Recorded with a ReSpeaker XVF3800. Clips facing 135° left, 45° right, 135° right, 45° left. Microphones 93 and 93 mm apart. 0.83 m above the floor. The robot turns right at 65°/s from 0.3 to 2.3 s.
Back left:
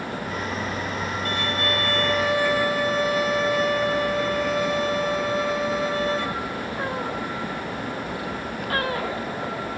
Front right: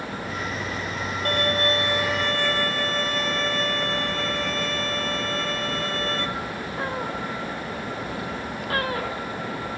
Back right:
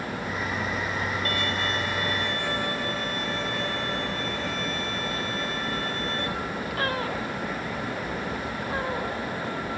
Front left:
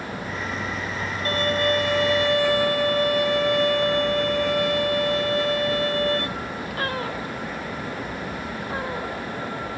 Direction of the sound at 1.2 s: 15° right.